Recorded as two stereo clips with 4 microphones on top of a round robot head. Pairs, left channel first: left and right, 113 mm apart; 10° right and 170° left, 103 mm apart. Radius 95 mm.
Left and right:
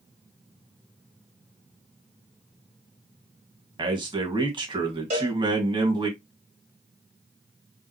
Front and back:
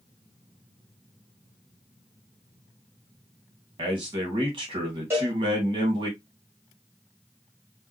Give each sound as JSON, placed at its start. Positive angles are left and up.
{"t": 3.8, "sound": "a man speaking", "azimuth_deg": -135, "distance_m": 2.0}
{"t": 5.1, "sound": "a cowbell", "azimuth_deg": -115, "distance_m": 3.0}